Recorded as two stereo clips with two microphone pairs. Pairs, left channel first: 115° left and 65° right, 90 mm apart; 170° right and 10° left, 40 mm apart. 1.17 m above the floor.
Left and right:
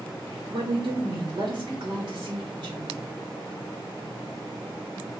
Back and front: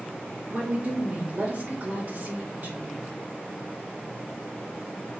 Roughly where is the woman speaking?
Ahead right.